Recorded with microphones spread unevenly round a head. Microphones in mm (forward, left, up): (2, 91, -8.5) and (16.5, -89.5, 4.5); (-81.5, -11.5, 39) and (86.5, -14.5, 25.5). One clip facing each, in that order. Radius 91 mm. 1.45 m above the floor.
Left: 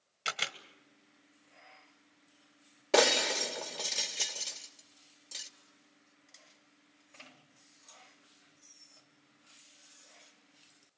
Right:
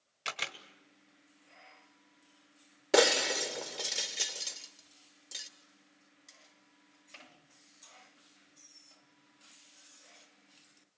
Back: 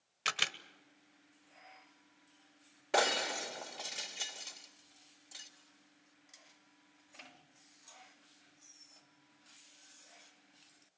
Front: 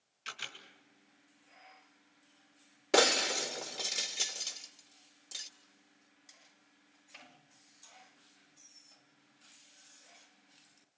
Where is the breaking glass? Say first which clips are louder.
Right 1 dB, front 4 dB; 15° right, 1.3 m.